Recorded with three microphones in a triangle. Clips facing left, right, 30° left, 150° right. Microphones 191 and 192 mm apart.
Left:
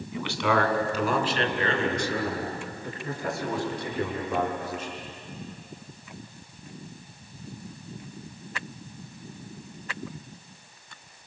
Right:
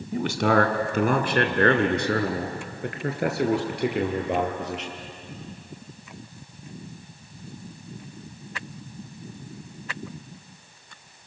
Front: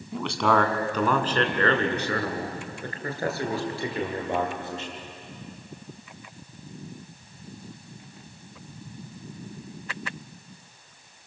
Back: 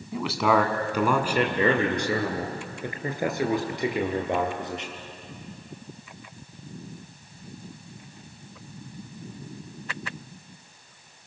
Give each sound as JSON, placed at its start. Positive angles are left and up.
{"t": 0.1, "sound": "a man speaking", "azimuth_deg": -65, "distance_m": 2.0}